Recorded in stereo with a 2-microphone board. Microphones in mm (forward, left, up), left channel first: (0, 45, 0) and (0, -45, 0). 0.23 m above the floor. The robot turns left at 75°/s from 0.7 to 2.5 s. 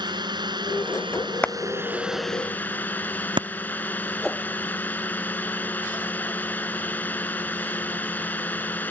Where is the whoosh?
5° left (ahead or behind).